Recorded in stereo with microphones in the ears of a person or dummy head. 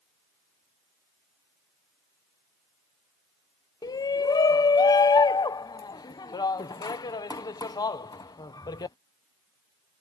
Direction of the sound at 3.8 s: 15° left (ahead or behind).